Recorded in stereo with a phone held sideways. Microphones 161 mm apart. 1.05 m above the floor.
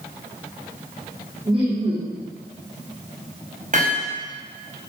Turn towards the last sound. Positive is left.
turn(degrees=-55)  # may be behind; listen again after turning